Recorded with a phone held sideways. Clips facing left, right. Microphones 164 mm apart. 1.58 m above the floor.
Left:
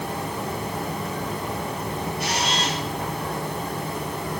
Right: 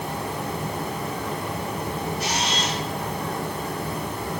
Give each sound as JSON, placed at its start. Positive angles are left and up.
{"t": 2.2, "sound": "a camera shutter", "side_deg": 55, "distance_m": 2.5}